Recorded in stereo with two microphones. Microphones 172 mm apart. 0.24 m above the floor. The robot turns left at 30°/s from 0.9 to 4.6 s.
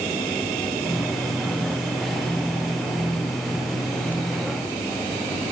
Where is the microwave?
I don't hear a microwave.